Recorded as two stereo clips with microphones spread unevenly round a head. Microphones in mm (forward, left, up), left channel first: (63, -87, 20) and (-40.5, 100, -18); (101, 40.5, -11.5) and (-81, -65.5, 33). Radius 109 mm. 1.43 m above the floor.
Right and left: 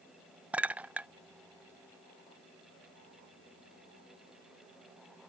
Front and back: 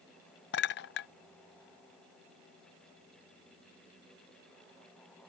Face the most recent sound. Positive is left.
turn(degrees=25)